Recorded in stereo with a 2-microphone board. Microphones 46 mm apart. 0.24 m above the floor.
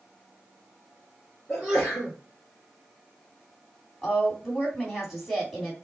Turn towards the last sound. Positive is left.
turn(degrees=0)  # may be behind; listen again after turning